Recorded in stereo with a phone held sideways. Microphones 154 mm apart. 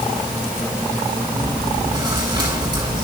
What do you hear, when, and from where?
1.3 s chewing: 30° right (ahead or behind), 8 m